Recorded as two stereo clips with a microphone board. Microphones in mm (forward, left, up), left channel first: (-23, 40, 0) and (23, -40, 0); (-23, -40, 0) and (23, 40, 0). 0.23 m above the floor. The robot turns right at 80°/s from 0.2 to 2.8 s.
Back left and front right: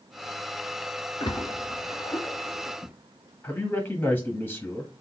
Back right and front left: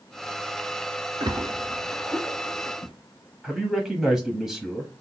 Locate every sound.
1.2 s a splash: 90° left, 0.9 m; by 2.9 s 140° right, 0.9 m
3.4 s a man speaking: 135° left, 1.1 m